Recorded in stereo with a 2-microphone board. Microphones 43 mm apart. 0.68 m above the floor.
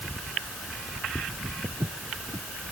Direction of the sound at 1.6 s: 70° right (ahead or behind).